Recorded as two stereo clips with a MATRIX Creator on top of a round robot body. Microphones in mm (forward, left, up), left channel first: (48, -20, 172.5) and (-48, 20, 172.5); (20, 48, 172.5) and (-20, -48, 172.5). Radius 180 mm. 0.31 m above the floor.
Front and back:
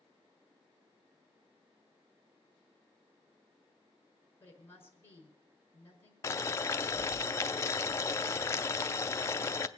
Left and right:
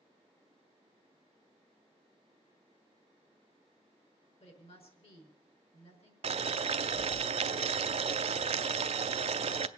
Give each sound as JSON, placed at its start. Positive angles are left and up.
{"t": 4.4, "sound": "a woman speaking", "azimuth_deg": 45, "distance_m": 5.0}
{"t": 6.2, "sound": "boiling", "azimuth_deg": -90, "distance_m": 0.5}